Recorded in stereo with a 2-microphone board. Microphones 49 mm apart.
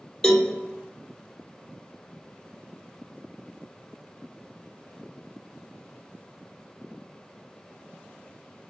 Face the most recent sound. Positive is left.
turn(degrees=15)  # may be behind; listen again after turning